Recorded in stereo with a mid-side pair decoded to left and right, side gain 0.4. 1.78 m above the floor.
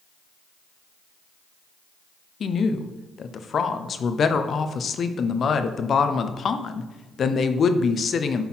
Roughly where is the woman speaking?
Ahead left.